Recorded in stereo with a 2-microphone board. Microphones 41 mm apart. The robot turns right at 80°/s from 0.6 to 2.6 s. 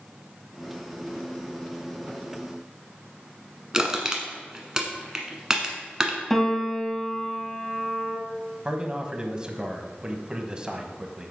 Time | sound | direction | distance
3.7 | crushing | 15° right (ahead or behind) | 1.3 m
6.3 | a piano | 5° left (ahead or behind) | 1.5 m
8.7 | a man speaking | 20° right (ahead or behind) | 1.1 m